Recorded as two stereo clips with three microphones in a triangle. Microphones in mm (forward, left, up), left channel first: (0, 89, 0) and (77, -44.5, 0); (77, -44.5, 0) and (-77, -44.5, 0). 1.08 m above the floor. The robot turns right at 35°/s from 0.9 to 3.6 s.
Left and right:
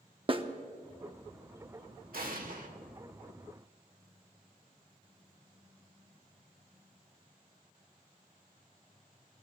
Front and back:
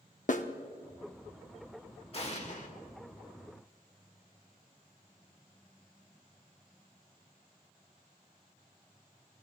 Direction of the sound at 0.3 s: 10° right.